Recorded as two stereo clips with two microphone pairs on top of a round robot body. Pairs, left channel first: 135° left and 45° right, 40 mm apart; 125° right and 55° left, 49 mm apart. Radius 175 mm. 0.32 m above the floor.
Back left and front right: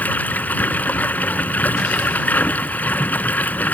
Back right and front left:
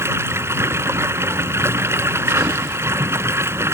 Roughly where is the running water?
Left.